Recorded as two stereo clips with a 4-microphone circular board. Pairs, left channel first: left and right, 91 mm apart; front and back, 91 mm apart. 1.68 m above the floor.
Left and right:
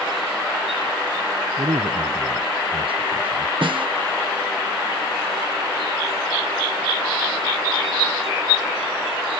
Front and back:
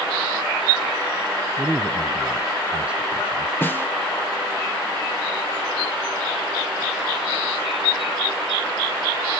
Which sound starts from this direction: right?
A man speaking, at 1.6 s.